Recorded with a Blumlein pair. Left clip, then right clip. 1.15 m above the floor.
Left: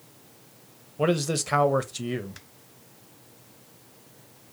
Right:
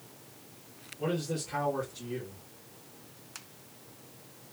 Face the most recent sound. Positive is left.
turn(degrees=40)